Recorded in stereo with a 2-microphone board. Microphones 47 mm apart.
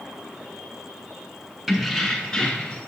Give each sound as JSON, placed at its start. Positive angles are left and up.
{"t": 1.7, "sound": "keys jangling", "side_deg": -5, "distance_m": 1.2}